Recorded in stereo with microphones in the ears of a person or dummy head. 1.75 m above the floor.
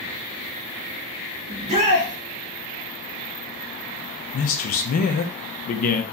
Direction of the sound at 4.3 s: 40° left (ahead or behind).